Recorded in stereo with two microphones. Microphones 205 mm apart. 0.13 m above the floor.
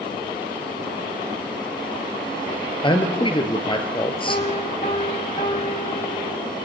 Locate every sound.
2.8 s a man speaking: 25° left (ahead or behind), 2.5 m
4.3 s a piano: 40° left (ahead or behind), 8.5 m